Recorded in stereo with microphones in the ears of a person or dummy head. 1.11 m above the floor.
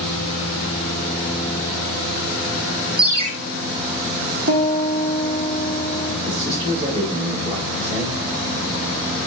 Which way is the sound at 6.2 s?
40° right (ahead or behind).